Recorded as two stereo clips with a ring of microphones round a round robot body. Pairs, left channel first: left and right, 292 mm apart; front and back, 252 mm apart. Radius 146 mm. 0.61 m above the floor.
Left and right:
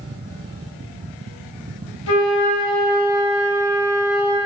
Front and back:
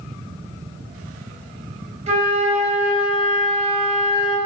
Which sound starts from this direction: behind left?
A flute, at 2.1 s.